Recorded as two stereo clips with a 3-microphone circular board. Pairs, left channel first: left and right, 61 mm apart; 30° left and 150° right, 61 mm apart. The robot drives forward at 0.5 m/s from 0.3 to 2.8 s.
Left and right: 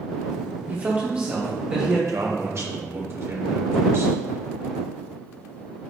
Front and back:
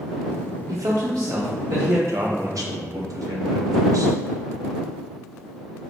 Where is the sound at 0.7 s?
145° right, 0.5 m; by 2.0 s 165° right, 1.1 m.